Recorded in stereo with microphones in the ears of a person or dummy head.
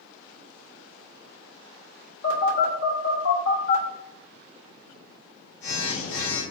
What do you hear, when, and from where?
2.2 s a phone buzzing: 80° left, 2.5 m